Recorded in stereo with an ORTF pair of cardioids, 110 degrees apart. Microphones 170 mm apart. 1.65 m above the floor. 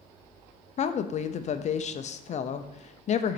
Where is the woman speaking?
40° left, 0.7 m.